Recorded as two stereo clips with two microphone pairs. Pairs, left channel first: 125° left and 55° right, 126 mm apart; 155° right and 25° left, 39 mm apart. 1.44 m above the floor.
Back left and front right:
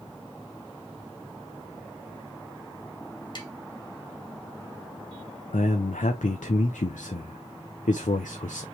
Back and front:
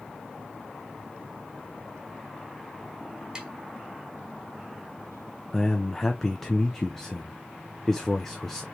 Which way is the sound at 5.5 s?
125° left.